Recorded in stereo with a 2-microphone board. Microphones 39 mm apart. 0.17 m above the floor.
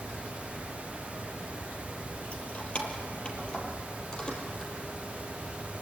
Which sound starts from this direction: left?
Keys jangling, at 2.3 s.